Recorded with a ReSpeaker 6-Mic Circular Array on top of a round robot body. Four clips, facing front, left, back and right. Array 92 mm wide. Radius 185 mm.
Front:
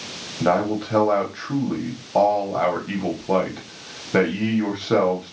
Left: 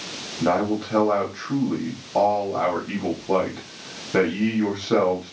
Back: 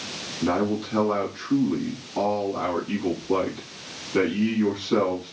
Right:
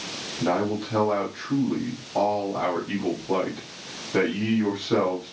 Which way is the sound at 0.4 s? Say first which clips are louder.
Left 3 dB, front 4 dB; 15° left.